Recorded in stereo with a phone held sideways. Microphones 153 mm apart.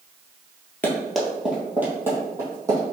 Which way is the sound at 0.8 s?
10° left (ahead or behind).